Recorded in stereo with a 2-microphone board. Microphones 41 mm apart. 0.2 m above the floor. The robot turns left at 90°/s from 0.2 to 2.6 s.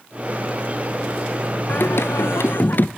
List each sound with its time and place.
1.7 s singing: 135° left, 0.6 m; by 2.9 s 50° left, 0.6 m